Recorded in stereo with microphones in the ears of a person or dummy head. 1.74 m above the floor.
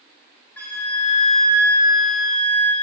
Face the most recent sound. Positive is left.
turn(degrees=10)  # may be behind; listen again after turning